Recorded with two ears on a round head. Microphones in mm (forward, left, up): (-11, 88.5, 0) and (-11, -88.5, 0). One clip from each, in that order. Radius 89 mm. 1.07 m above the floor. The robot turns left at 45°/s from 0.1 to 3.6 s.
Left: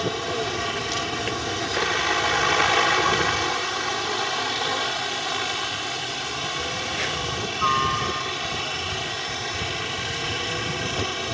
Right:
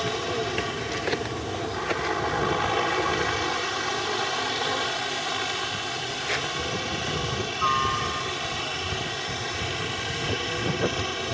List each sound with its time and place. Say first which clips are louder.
0.0 s a helicopter: left 1 dB; 170° left; by 11.3 s 15° left